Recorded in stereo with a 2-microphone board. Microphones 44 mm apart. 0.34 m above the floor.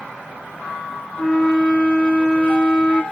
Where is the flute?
25° left (ahead or behind), 1.3 m.